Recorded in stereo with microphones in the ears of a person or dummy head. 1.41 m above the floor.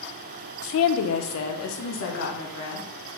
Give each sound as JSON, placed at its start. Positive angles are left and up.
{"t": 0.6, "sound": "a woman speaking", "side_deg": 65, "distance_m": 0.6}